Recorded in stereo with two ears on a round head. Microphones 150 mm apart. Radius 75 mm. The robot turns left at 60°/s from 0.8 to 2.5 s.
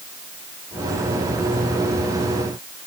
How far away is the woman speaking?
No woman speaking in this recording.